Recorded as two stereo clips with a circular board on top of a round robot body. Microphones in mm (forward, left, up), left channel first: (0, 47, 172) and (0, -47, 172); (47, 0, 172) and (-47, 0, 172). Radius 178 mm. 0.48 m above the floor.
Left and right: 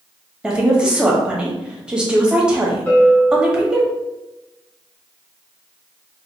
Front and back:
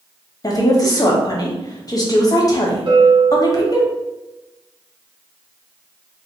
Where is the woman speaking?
15° right, 1.3 m.